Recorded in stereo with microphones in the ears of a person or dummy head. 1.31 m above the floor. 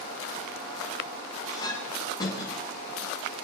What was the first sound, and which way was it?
A clink, 20° left (ahead or behind).